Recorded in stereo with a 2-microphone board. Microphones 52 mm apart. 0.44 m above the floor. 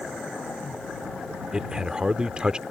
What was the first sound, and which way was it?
A man speaking, 20° right (ahead or behind).